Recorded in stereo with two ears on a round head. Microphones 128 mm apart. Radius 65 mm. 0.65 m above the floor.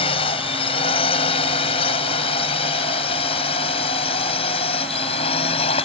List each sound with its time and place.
0.0 s a drone: 40° left (ahead or behind)